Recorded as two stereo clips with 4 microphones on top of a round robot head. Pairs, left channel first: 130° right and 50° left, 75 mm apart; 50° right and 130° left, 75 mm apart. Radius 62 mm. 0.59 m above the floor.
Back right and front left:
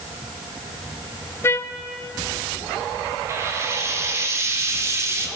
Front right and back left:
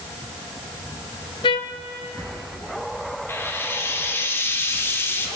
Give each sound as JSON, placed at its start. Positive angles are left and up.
{"t": 1.4, "sound": "a trumpet", "azimuth_deg": -70, "distance_m": 0.8}
{"t": 3.3, "sound": "frying", "azimuth_deg": 5, "distance_m": 1.9}